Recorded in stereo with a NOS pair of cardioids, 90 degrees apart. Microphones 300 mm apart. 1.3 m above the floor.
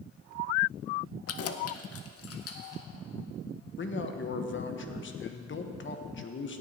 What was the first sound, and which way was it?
Keys jangling, 55° left.